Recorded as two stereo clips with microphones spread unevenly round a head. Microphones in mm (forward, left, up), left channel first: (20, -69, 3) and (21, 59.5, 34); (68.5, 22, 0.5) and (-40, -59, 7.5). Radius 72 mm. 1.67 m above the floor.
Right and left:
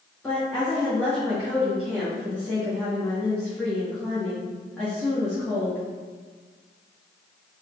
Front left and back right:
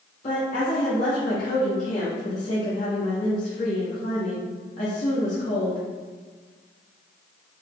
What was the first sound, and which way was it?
A woman speaking, 5° right.